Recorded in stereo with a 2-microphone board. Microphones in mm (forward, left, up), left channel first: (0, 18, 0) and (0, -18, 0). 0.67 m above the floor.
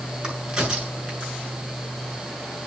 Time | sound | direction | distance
0.2 | a crack | 20° right (ahead or behind) | 6.5 m